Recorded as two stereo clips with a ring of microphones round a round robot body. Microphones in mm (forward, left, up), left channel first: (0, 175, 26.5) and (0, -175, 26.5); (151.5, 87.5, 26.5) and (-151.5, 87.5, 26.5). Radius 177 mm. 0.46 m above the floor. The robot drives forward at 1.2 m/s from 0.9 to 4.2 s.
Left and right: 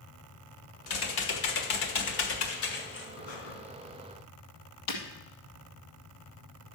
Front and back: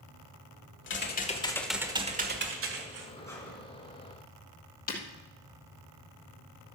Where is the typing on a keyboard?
50° left, 1.6 m; by 3.1 s 145° left, 2 m.